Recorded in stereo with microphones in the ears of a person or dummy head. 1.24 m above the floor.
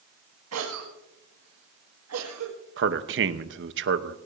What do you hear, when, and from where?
0.5 s a cough: 80° right, 2 m
2.8 s a man speaking: 55° right (ahead or behind), 1.0 m